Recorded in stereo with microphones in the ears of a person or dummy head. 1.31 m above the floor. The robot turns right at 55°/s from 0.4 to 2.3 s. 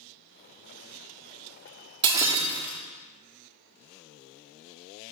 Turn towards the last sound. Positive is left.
turn(degrees=-10)  # may be behind; listen again after turning